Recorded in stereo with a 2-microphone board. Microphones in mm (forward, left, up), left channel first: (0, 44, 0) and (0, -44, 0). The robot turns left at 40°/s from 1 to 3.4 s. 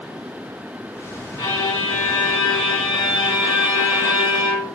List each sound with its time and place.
1.4 s a violin: 50° left, 1.8 m; by 4.8 s 30° right, 1.8 m